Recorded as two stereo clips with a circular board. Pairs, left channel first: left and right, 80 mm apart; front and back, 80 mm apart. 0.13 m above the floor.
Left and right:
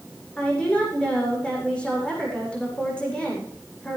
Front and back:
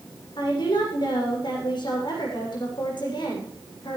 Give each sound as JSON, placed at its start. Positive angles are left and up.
{"t": 0.4, "sound": "a woman speaking", "azimuth_deg": 15, "distance_m": 9.5}